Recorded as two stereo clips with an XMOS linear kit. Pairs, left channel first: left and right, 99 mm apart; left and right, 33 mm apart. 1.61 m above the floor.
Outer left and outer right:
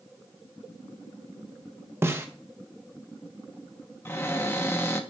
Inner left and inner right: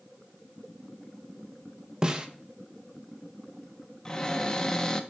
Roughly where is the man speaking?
No man speaking in this recording.